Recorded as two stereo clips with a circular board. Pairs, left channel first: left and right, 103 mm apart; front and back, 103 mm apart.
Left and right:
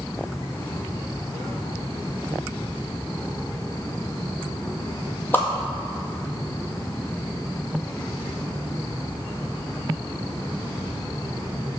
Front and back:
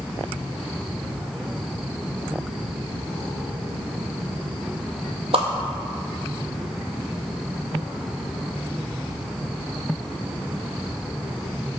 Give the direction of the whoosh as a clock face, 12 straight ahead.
7 o'clock.